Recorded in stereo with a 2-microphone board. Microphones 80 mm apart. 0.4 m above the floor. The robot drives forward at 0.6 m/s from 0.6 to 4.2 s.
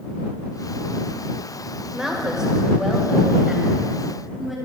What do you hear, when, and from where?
1.9 s a woman speaking: 5° right (ahead or behind), 1.8 m